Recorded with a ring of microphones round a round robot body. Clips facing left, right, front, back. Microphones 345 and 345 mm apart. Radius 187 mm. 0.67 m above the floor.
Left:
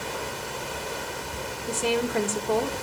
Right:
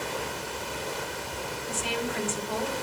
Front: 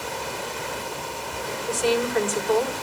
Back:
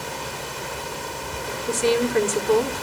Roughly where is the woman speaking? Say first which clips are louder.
Left 8 dB, back 2 dB; behind left.